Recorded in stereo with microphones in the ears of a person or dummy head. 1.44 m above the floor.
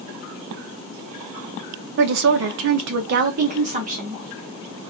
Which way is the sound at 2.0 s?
50° right (ahead or behind).